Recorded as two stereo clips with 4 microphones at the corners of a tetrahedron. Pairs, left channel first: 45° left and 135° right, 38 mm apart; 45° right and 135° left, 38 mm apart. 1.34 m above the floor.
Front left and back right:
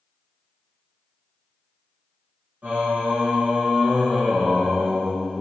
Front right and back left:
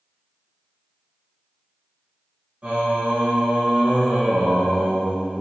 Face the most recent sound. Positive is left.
turn(degrees=180)